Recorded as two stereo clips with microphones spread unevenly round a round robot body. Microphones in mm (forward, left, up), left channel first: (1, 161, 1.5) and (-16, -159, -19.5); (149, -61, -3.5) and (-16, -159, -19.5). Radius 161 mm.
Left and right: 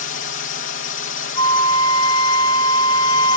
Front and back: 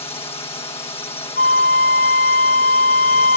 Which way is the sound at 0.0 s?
80° left.